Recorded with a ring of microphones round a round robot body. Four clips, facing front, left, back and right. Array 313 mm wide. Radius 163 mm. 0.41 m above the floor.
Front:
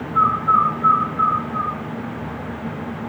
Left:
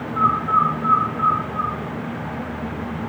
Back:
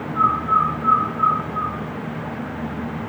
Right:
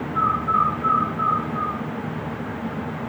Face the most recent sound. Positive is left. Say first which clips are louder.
# left 2 dB, front 2 dB
turn(degrees=10)